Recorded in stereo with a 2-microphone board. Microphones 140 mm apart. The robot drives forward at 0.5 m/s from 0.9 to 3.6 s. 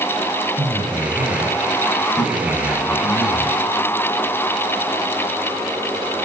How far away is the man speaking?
About 4.5 m.